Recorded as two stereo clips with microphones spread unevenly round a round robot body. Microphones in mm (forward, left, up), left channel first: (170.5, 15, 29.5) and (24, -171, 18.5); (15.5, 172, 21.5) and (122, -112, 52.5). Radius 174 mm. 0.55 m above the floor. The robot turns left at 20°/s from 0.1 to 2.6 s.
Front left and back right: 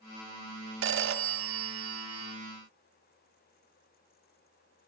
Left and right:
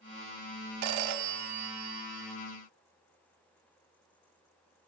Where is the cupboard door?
I don't hear a cupboard door.